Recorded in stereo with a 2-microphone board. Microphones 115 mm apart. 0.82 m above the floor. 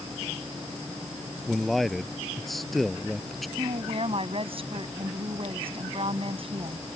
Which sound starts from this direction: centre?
A man speaking, at 1.5 s.